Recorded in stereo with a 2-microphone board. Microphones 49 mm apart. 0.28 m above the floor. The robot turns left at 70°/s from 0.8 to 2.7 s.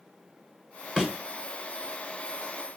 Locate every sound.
1.0 s a thud: 10° right (ahead or behind), 1.3 m; by 1.1 s 20° right (ahead or behind), 1.3 m